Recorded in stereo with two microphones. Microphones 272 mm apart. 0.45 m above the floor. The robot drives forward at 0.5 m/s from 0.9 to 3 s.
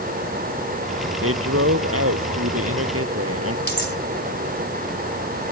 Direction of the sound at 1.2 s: 55° right (ahead or behind).